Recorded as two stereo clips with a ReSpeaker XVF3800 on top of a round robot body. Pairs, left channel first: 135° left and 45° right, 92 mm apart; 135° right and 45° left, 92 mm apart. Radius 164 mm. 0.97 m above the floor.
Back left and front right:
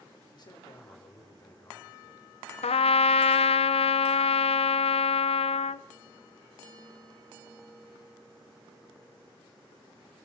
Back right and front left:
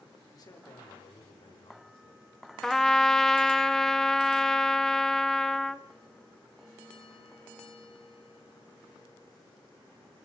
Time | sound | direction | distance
0.3 | a man speaking | 175° left | 4.5 m
2.6 | a trumpet | 140° left | 0.6 m